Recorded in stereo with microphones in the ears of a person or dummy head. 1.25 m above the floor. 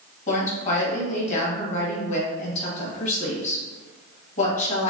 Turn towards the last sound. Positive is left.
turn(degrees=45)  # may be behind; listen again after turning